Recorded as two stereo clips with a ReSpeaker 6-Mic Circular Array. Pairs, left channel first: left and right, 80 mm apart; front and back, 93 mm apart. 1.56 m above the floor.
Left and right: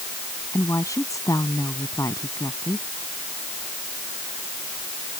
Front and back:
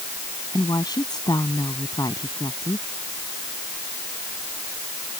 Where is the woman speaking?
45° left.